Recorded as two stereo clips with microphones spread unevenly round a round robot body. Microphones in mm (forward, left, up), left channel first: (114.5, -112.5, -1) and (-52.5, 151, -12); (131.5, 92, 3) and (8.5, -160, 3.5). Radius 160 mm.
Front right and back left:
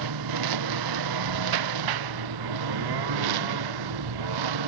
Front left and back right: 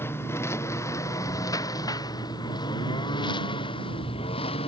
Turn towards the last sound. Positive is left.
turn(degrees=135)